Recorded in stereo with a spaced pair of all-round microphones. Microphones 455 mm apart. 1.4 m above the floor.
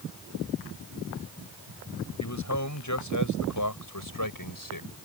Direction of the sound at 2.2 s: 35° left (ahead or behind).